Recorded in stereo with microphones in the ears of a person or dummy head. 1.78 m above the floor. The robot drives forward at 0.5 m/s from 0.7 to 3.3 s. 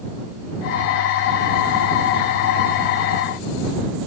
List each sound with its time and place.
Only background noise.